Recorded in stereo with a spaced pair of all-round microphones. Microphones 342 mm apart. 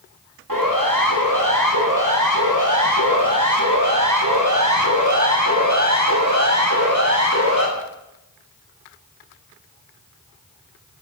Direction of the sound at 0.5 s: 70° right (ahead or behind).